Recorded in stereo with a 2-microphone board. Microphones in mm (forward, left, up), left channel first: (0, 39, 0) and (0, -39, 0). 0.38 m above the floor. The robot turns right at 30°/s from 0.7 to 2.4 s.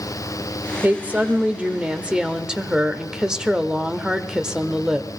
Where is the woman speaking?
20° right (ahead or behind), 0.8 m; by 5.1 s 10° right (ahead or behind), 0.8 m.